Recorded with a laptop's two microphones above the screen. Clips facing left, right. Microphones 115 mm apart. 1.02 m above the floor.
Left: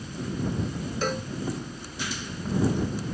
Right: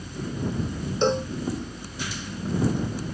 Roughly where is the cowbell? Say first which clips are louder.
Right 8 dB; right.